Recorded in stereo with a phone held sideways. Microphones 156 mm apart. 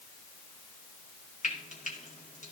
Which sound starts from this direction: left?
Frying, at 1.4 s.